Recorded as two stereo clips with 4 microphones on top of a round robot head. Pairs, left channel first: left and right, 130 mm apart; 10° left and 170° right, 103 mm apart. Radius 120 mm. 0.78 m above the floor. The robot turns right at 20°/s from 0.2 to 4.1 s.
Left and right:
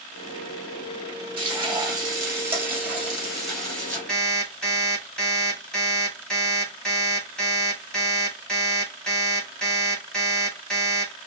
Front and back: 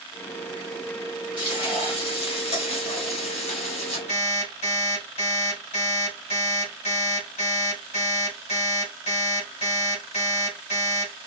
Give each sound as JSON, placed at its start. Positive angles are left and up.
{"t": 1.4, "sound": "frying", "azimuth_deg": -40, "distance_m": 2.0}
{"t": 4.1, "sound": "an alarm clock", "azimuth_deg": 5, "distance_m": 2.5}